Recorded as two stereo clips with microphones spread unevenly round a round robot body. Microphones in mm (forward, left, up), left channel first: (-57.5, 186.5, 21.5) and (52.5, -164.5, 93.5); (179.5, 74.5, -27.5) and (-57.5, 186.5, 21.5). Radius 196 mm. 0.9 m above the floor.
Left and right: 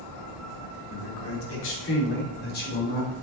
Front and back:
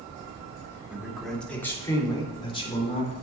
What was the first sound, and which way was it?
A man speaking, 65° left.